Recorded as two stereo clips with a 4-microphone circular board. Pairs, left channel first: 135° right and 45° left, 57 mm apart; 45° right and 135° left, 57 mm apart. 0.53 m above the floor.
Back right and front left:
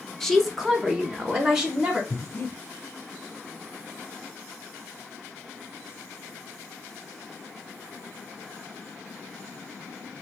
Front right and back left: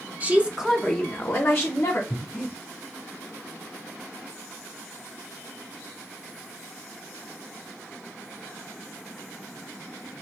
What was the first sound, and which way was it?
A woman speaking, 145° left.